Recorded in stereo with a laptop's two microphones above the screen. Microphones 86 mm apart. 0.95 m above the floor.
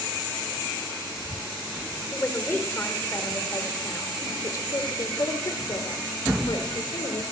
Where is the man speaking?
20° left (ahead or behind), 4.5 m; by 7.2 s 65° left (ahead or behind), 4.5 m.